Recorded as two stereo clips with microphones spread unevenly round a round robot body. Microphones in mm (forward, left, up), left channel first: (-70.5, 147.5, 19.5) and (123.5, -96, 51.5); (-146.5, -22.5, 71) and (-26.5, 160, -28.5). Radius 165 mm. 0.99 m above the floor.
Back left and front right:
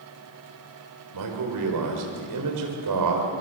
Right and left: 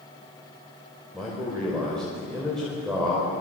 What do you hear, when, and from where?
1.1 s a man speaking: 30° right, 4.5 m